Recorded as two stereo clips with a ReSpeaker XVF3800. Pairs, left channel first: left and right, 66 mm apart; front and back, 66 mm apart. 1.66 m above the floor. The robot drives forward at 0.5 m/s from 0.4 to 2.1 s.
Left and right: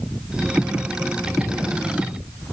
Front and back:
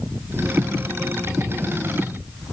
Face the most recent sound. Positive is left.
No sound to turn to.